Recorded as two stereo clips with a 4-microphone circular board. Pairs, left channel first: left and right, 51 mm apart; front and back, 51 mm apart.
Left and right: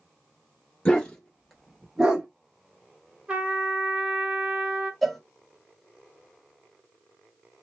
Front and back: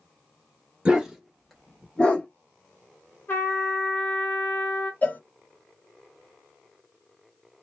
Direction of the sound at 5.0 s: Straight ahead.